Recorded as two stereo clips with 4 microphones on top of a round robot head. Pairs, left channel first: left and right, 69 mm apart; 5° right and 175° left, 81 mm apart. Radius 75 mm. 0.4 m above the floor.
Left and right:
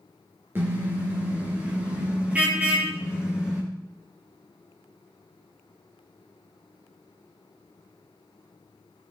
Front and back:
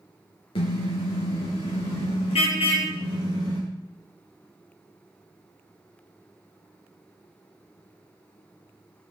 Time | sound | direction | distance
0.6 | a car horn | 25° right | 4.5 m